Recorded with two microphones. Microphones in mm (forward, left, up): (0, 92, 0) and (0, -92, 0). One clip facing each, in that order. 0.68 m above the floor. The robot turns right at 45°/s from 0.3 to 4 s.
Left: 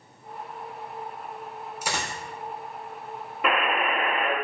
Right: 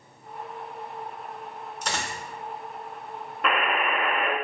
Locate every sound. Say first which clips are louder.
1.8 s a dropped coin: even; 5° left (ahead or behind), 0.5 m; by 2.2 s 20° left (ahead or behind), 0.5 m
3.4 s a buzzer: left 1 dB; 5° left (ahead or behind), 0.8 m; by 4.3 s 10° right (ahead or behind), 0.8 m